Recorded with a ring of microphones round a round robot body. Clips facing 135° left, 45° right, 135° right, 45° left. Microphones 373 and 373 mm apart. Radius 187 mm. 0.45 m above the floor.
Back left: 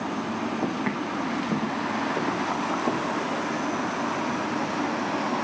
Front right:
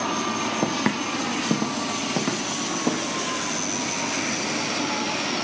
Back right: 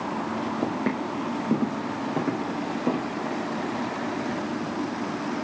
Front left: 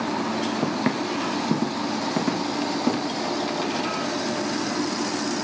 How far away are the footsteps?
About 1.6 m.